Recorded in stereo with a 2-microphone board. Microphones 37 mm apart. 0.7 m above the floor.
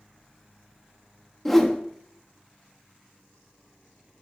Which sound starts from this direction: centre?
A whoosh, at 1.4 s.